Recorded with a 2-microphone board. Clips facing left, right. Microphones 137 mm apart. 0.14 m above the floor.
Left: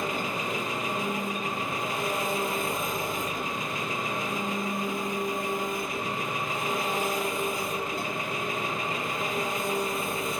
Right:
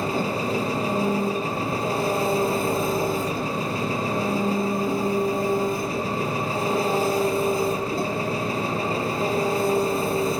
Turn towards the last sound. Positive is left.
turn(degrees=-35)  # may be behind; listen again after turning